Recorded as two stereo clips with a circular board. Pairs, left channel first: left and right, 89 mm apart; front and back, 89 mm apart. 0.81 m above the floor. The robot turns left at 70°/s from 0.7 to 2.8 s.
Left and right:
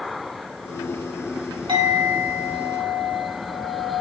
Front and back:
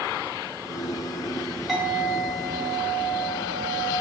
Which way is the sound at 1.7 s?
90° right.